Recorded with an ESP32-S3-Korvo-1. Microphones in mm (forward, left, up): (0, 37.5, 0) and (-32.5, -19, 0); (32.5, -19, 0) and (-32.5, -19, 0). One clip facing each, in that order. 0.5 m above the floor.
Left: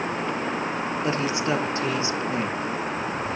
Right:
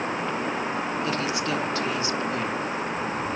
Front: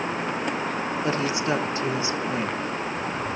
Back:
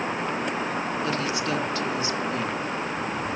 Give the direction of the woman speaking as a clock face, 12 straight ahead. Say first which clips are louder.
Left 2 dB, front 5 dB; 11 o'clock.